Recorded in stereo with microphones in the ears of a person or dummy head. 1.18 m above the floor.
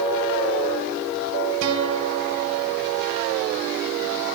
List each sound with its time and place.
1.6 s a guitar: 80° right, 3 m